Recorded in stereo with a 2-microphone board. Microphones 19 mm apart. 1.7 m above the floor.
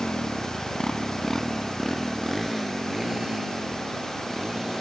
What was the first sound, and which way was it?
A motorcycle, 75° left (ahead or behind).